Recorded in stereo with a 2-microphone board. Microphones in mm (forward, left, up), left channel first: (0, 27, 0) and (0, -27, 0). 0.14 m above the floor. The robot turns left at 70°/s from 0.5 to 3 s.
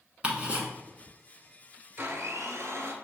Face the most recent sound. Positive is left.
turn(degrees=-130)